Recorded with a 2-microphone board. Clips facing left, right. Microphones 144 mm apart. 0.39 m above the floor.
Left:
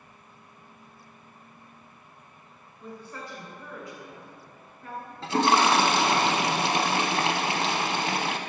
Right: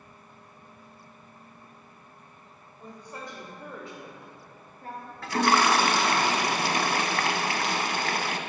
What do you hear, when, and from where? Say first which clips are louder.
2.8 s a woman speaking: left 1 dB; 15° right (ahead or behind), 2.0 m; by 5.1 s 40° right (ahead or behind), 1.6 m
5.2 s a toilet flushing: left 1 dB; 25° left (ahead or behind), 0.5 m